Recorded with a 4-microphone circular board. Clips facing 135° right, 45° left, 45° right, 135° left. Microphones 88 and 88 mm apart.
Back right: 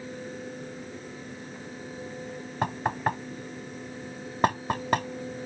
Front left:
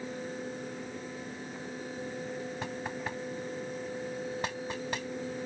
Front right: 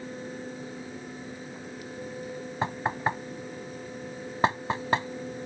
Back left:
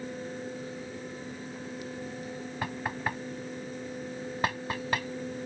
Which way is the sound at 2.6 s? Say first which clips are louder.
Back right 9 dB, front right 6 dB; 105° right.